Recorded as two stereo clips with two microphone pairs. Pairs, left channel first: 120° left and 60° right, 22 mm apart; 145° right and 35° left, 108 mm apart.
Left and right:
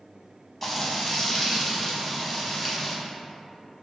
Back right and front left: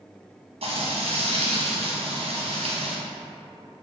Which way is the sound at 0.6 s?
35° left.